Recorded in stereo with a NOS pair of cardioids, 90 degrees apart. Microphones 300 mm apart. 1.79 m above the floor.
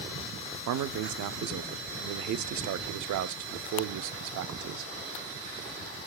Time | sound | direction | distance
0.7 | a man speaking | 70° right | 0.8 m